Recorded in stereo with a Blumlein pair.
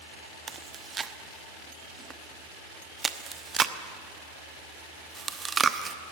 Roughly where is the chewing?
Ahead.